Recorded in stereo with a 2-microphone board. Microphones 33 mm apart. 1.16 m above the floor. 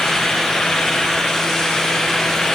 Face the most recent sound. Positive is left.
No sound to turn to.